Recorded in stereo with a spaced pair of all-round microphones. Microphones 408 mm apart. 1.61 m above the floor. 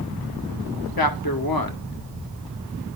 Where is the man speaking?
60° left (ahead or behind), 0.9 m.